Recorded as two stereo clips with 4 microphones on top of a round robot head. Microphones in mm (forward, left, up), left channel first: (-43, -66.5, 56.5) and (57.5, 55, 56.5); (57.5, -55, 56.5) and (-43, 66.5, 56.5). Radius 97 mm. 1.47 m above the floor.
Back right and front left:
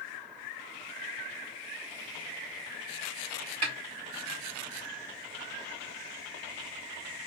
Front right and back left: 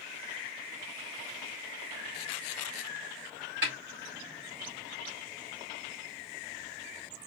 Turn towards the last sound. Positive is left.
turn(degrees=100)